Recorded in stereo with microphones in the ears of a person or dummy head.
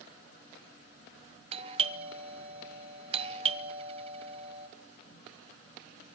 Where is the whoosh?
I don't hear a whoosh.